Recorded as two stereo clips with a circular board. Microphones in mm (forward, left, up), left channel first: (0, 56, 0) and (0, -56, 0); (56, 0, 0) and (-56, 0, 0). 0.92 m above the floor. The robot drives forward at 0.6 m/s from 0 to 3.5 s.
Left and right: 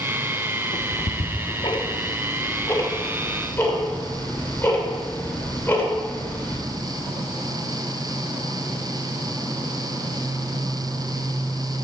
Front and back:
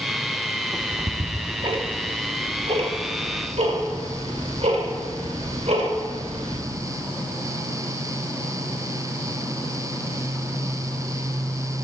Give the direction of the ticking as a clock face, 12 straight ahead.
9 o'clock.